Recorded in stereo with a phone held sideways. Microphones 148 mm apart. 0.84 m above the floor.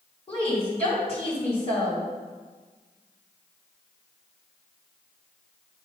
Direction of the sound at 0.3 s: 45° left (ahead or behind).